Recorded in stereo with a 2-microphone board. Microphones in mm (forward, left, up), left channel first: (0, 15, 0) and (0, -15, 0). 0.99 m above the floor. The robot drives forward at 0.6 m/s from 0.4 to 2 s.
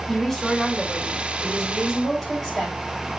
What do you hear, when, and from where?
0.1 s a woman speaking: 5° left (ahead or behind), 3.5 m